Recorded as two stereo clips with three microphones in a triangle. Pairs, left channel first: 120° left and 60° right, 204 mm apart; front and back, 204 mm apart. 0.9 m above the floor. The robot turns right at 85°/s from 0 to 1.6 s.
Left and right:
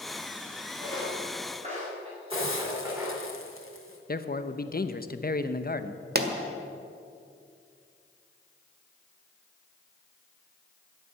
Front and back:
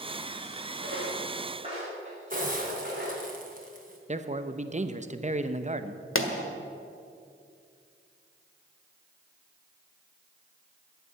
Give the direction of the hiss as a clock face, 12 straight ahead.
8 o'clock.